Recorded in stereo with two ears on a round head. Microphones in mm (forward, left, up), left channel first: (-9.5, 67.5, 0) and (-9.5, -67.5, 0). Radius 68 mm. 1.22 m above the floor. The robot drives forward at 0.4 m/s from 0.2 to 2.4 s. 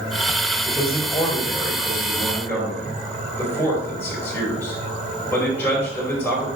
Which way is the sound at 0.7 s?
20° left (ahead or behind).